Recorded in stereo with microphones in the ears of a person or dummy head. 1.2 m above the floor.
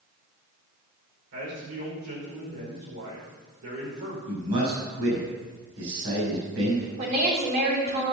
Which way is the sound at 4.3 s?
70° right (ahead or behind).